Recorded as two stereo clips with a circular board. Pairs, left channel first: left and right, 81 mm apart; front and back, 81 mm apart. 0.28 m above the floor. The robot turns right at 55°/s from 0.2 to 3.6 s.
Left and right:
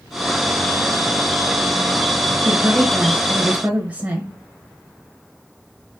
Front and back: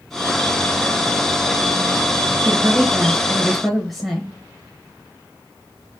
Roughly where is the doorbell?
No doorbell in this recording.